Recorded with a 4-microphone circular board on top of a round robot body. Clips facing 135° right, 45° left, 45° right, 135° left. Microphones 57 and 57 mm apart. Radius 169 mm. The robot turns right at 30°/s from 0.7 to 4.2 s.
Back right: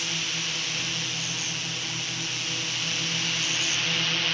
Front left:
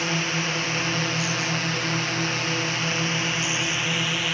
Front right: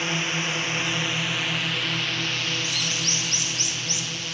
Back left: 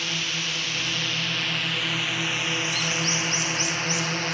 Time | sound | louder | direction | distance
0.0 | a drone | front left 7 dB, front right 3 dB | 15° left | ?